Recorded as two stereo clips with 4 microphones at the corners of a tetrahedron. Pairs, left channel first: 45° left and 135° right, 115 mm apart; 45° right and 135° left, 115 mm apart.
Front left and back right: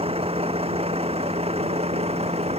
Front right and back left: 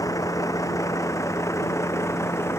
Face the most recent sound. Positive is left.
turn(degrees=-110)